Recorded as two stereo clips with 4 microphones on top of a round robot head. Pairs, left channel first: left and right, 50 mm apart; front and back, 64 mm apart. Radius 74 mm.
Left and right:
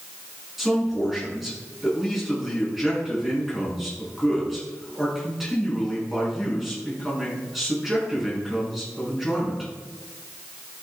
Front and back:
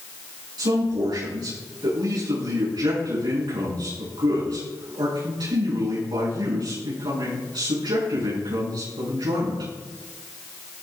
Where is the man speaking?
175° right, 6 m.